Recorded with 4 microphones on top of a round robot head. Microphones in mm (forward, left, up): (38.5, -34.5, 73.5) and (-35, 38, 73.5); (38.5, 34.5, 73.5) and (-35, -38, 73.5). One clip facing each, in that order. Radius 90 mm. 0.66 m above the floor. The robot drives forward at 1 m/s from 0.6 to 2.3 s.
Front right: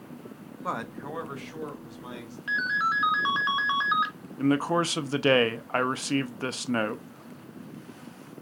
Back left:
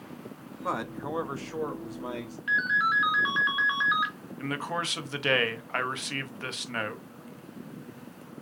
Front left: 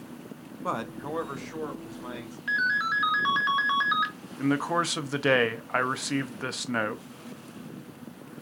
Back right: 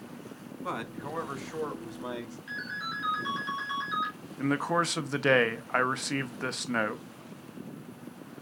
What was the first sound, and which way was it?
A man speaking, 40° left.